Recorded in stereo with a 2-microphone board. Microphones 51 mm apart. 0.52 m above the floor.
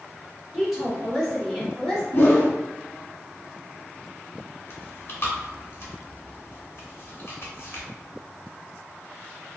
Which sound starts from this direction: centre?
A woman speaking, at 0.5 s.